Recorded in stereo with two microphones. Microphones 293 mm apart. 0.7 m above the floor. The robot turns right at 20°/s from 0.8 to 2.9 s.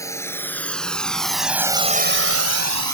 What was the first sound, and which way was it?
A drone, 10° left (ahead or behind).